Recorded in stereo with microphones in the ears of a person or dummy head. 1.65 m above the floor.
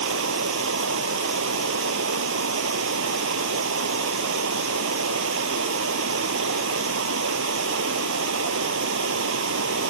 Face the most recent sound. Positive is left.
turn(degrees=-65)  # may be behind; listen again after turning